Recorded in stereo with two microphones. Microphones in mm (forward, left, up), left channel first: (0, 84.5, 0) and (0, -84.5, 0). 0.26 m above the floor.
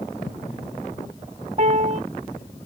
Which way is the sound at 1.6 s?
45° right (ahead or behind).